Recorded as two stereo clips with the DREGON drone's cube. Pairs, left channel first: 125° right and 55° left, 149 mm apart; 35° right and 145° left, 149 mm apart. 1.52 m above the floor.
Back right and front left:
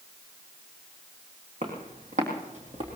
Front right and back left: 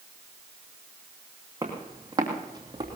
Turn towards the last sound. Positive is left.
turn(degrees=90)